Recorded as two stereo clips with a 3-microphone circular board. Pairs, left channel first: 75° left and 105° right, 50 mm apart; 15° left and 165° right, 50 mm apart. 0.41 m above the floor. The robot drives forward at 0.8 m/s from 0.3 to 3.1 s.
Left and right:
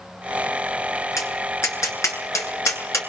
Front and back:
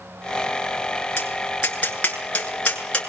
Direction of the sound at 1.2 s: 70° left.